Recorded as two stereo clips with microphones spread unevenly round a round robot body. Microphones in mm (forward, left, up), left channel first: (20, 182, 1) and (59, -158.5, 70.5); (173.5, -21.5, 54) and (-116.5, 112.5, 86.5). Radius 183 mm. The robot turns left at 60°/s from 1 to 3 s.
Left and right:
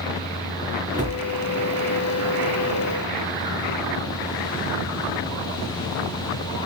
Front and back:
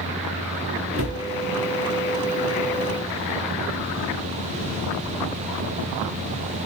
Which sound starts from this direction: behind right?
A cupboard door, at 0.9 s.